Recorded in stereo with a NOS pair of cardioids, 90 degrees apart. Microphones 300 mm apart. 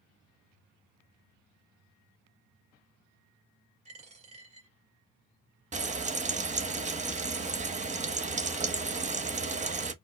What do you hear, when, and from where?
3.9 s a dropped coin: 20° right, 1.6 m
5.7 s frying: 20° right, 0.8 m